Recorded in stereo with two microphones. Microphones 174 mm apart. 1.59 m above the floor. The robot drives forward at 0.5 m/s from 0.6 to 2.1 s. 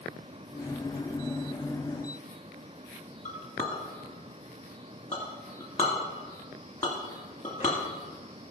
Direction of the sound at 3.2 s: 40° left (ahead or behind).